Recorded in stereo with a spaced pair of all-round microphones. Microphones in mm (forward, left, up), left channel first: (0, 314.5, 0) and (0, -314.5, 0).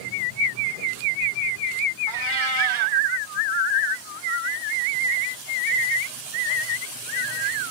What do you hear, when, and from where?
2.1 s a cat meowing: 50° right (ahead or behind), 1.2 m